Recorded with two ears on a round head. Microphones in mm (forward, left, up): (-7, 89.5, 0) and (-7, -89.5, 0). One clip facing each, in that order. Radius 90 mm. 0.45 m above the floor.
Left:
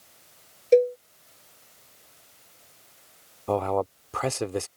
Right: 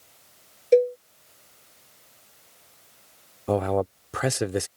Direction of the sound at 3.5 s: 15° right (ahead or behind).